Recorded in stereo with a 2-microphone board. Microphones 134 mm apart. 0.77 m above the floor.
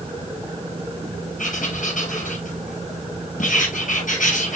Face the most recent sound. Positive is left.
turn(degrees=75)  # may be behind; listen again after turning